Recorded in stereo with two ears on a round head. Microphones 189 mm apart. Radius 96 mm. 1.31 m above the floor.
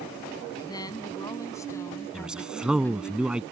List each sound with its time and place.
0.6 s a woman speaking: 20° left (ahead or behind); by 3.1 s 5° left (ahead or behind)
2.1 s a man speaking: 5° right (ahead or behind)